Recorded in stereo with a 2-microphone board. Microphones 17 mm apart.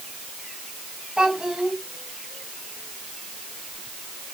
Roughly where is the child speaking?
Right.